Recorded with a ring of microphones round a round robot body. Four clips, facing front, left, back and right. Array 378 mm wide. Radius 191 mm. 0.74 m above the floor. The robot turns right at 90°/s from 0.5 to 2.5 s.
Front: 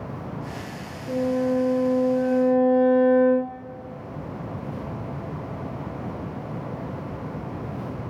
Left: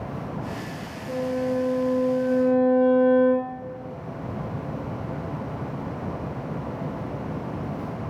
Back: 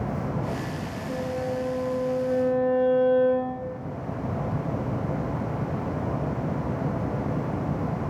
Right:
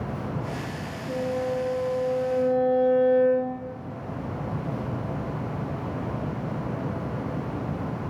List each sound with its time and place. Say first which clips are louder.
1.1 s a violin: left 2 dB, front 7 dB; 160° right, 1.9 m; by 3.6 s 35° right, 1.9 m